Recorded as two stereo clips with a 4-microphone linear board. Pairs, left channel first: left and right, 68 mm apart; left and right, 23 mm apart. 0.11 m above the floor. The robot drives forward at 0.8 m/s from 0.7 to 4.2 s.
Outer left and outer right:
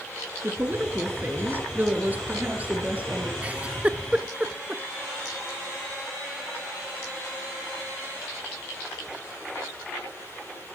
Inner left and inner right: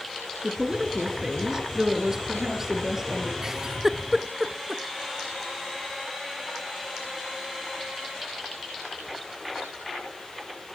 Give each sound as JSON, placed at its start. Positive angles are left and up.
{"t": 0.4, "sound": "a woman speaking", "side_deg": -35, "distance_m": 1.8}
{"t": 3.4, "sound": "a giggle", "side_deg": -20, "distance_m": 0.7}